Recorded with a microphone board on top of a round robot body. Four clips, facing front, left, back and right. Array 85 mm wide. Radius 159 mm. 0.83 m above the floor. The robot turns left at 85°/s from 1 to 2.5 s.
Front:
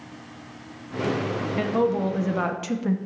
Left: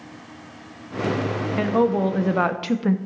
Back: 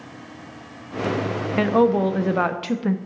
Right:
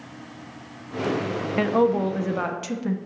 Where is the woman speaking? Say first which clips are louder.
Even, back 6 dB; 155° right, 0.7 m; by 3.0 s 125° left, 0.7 m.